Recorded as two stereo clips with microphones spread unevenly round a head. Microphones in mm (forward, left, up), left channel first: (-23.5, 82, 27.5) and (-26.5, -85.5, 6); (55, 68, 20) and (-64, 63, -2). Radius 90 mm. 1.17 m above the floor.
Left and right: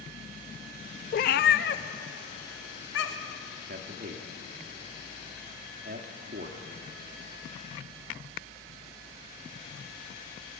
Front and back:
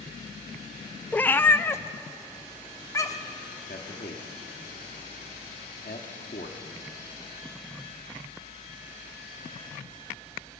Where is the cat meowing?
70° left, 0.6 m; by 3.4 s 65° left, 1.7 m.